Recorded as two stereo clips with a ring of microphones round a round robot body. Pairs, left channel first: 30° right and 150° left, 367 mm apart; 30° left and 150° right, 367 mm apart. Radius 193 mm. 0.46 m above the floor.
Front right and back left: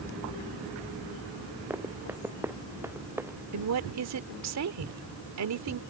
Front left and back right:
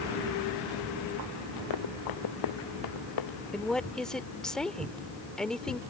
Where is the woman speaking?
120° left.